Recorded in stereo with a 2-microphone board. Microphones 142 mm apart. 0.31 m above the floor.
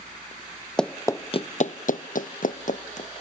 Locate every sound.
0.8 s running footsteps: 5° left (ahead or behind), 0.7 m; by 3.1 s 60° left (ahead or behind), 1.4 m